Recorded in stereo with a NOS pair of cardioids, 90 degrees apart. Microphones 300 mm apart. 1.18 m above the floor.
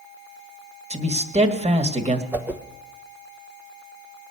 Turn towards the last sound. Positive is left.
turn(degrees=-5)